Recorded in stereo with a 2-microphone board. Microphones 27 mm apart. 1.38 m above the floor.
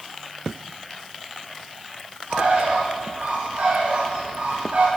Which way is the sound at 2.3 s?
80° right.